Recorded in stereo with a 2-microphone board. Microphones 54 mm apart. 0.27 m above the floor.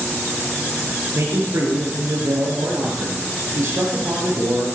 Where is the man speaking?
75° right (ahead or behind), 5.5 m.